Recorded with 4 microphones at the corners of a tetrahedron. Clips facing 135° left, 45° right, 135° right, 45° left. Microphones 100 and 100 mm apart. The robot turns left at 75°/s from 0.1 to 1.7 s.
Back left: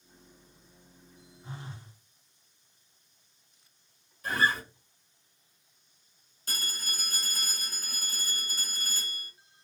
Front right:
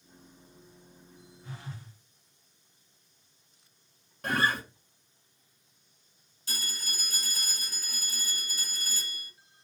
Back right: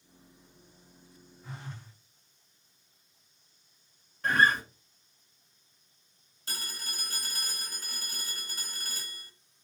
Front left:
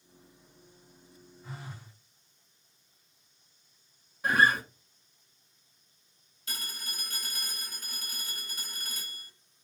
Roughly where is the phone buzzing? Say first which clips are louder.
Even, even; behind left.